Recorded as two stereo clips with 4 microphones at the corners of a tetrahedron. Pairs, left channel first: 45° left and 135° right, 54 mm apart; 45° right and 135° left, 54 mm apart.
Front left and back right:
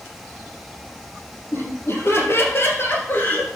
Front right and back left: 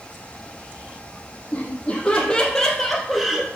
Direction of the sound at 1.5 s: 15° left.